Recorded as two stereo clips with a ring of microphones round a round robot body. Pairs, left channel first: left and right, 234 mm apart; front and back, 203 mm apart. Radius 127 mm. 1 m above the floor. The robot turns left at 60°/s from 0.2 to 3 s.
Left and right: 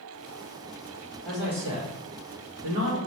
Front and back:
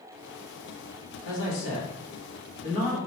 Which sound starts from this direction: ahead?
A man speaking, at 1.2 s.